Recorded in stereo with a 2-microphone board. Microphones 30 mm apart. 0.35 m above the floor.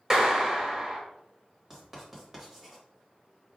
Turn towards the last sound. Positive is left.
turn(degrees=-15)  # may be behind; listen again after turning